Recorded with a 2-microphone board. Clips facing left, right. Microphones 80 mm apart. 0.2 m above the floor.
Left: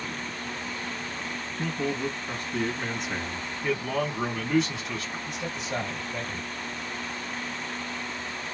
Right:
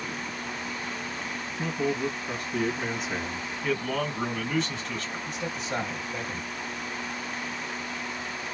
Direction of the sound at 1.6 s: Centre (ahead or behind).